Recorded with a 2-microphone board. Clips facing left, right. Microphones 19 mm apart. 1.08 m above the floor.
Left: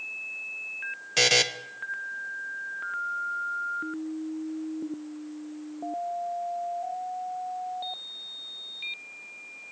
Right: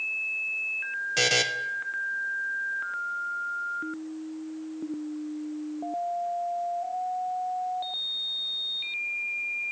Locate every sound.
1.2 s a buzzer: 15° left (ahead or behind), 0.6 m